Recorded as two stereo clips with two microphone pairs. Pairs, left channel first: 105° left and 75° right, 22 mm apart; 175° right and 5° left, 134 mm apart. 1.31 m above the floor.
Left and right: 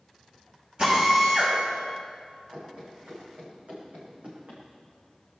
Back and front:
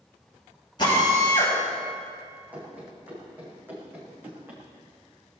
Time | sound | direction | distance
0.8 | a drill | 120° right | 6 m
2.5 | running footsteps | 70° right | 5 m